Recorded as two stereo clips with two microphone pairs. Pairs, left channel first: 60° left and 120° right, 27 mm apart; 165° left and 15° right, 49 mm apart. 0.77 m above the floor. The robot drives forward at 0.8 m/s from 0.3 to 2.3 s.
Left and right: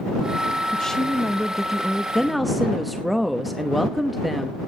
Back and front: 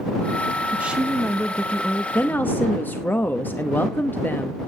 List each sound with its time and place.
0.7 s a woman speaking: 15° left, 0.8 m; by 2.0 s 170° left, 0.9 m
2.1 s a woman speaking: 145° left, 0.8 m; by 4.6 s 150° left, 0.9 m